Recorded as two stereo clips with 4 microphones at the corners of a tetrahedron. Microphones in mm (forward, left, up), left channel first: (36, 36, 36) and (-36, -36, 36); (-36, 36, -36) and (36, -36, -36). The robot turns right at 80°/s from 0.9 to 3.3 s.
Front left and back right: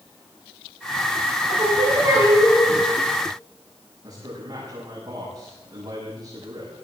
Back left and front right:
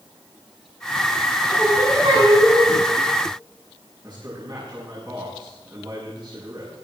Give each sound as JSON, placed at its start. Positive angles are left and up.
{"t": 1.5, "sound": "singing", "azimuth_deg": -125, "distance_m": 8.0}
{"t": 4.0, "sound": "a man speaking", "azimuth_deg": -85, "distance_m": 6.5}